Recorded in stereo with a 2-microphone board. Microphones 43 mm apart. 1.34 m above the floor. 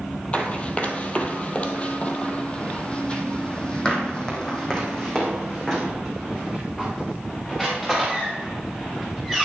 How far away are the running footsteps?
About 1.5 m.